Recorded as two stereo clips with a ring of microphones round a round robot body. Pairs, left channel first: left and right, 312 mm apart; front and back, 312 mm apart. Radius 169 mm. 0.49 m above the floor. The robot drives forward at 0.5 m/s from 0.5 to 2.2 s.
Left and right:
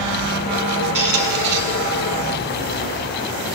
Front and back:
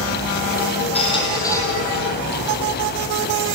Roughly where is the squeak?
Right.